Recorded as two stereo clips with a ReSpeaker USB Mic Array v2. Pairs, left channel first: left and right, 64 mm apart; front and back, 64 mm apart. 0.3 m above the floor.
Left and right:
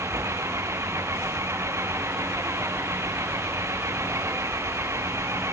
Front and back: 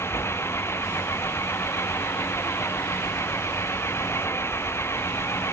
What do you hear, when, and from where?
0.0 s an engine running: 50° right